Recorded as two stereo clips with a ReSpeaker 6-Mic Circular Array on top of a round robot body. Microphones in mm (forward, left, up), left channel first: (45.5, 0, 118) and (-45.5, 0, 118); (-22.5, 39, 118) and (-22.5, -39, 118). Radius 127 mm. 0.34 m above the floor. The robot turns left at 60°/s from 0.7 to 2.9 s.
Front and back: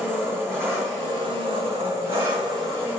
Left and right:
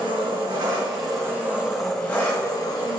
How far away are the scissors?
No scissors in this recording.